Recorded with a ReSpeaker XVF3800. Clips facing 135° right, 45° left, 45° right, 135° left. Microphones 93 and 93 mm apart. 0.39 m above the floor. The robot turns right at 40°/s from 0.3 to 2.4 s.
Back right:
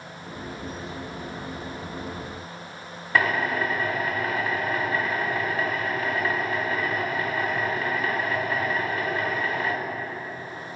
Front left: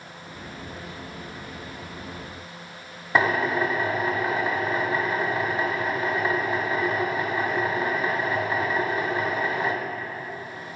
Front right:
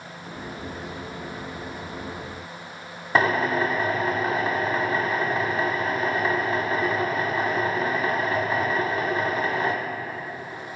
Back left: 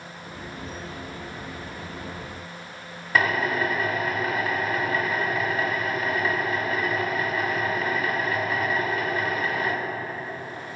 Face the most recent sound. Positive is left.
turn(degrees=-5)